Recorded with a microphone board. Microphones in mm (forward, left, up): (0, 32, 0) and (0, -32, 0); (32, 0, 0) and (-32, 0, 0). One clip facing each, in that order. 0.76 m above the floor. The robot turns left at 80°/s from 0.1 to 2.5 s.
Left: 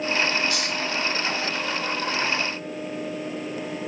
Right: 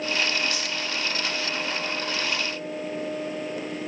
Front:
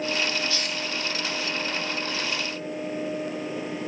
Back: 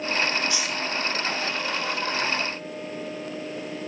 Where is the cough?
No cough in this recording.